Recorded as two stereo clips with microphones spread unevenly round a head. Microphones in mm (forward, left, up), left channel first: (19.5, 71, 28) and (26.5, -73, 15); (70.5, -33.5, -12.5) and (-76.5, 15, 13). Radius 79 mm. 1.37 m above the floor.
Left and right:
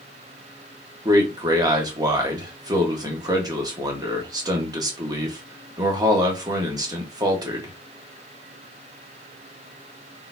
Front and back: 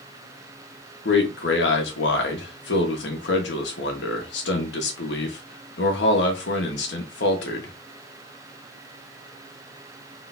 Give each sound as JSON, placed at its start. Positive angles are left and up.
{"t": 1.1, "sound": "a man speaking", "azimuth_deg": -25, "distance_m": 1.7}